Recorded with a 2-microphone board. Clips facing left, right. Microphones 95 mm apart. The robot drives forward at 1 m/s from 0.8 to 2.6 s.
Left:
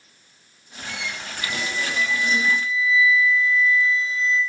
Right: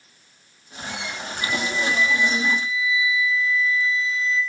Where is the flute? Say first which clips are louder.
Right 4 dB; 45° left (ahead or behind), 3.5 m; by 4.4 s 35° left (ahead or behind), 4 m.